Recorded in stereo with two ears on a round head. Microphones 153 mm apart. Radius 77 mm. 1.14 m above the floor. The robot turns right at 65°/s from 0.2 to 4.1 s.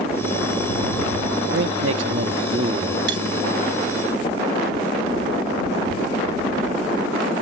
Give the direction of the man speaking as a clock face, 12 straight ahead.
4 o'clock.